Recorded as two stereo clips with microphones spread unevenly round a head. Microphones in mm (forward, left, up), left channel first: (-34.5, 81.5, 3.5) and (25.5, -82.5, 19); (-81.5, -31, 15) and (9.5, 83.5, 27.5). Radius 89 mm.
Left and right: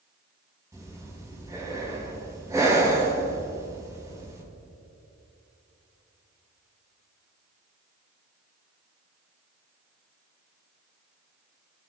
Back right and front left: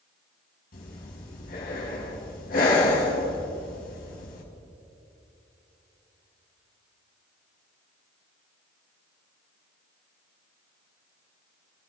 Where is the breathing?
145° right, 4.5 m.